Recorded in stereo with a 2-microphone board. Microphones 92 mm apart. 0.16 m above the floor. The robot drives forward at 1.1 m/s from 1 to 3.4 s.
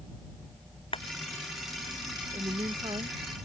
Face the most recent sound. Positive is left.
turn(degrees=-60)  # may be behind; listen again after turning